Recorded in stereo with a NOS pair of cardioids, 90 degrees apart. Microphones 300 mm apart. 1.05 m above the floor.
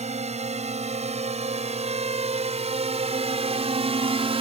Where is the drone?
20° right.